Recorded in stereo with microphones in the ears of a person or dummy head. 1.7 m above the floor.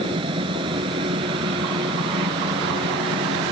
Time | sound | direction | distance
0.0 | a fan | 35° right (ahead or behind) | ?